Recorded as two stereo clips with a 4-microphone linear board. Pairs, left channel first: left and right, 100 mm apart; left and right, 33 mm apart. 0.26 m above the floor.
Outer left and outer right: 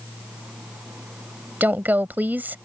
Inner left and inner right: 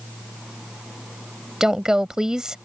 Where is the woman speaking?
20° right (ahead or behind).